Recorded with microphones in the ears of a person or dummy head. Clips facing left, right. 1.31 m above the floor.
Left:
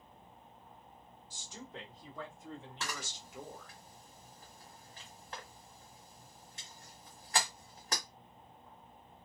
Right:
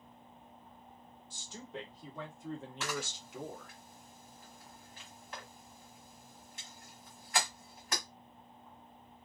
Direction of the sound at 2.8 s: 30° left (ahead or behind).